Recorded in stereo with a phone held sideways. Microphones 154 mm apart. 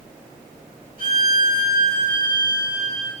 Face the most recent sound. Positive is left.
turn(degrees=-70)  # may be behind; listen again after turning